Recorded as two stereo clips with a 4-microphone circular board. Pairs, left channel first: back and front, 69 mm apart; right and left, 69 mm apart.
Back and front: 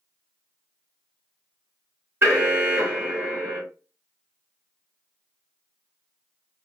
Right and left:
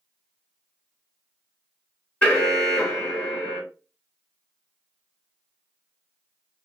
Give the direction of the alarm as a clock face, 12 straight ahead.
1 o'clock.